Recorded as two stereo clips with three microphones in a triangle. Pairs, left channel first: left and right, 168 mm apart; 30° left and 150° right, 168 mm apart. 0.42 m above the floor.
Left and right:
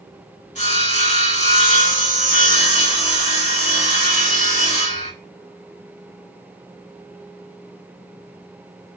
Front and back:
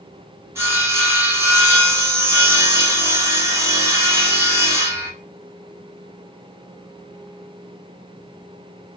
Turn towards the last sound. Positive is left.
turn(degrees=135)